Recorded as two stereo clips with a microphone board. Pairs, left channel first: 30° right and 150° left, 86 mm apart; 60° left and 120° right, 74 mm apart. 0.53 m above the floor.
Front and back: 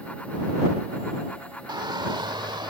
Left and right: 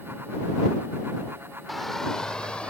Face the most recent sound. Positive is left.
turn(degrees=135)